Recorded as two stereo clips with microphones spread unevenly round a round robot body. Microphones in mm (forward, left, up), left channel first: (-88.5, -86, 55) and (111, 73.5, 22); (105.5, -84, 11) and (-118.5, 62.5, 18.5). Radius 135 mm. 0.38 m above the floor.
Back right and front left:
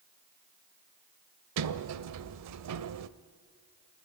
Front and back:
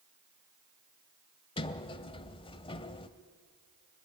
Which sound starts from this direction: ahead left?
A sliding door, at 1.6 s.